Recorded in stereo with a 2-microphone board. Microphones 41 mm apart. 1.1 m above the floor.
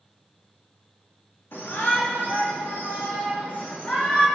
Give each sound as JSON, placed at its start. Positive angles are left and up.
{"t": 1.5, "sound": "a shout", "side_deg": 75, "distance_m": 4.0}